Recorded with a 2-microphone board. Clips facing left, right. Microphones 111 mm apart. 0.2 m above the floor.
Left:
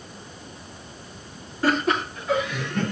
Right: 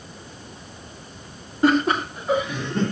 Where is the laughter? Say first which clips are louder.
Right 4 dB; 20° right (ahead or behind), 2 m; by 2.9 s 40° right (ahead or behind), 4 m.